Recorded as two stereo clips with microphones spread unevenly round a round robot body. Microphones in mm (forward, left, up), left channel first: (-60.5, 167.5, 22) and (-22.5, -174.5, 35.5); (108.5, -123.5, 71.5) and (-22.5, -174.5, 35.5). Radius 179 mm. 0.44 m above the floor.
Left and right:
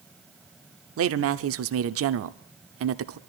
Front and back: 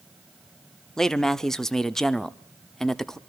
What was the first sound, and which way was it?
A man speaking, 85° right.